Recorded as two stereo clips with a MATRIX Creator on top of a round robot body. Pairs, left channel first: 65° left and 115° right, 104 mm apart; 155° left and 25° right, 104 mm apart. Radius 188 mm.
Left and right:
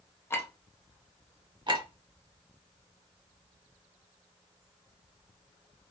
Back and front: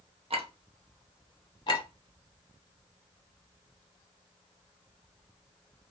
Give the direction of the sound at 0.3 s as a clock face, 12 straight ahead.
12 o'clock.